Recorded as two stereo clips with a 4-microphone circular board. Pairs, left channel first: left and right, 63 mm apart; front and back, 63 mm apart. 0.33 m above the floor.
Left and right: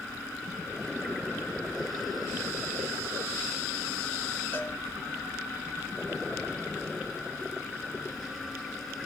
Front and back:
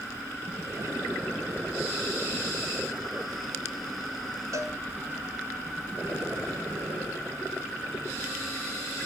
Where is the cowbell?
145° left, 1.5 m.